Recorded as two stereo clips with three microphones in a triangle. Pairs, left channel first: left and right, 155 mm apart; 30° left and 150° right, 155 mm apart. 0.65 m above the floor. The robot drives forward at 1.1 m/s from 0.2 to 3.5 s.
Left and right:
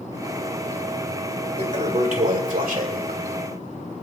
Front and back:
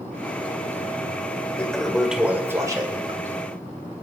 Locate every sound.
1.6 s a toilet flushing: 50° right, 2.5 m; by 3.2 s 100° right, 1.9 m